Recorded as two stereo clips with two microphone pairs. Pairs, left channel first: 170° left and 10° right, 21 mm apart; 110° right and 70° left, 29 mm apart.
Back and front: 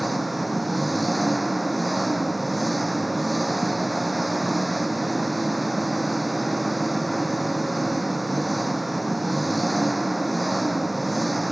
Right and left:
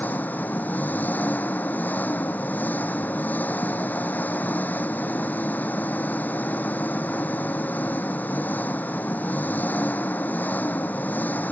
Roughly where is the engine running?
Right.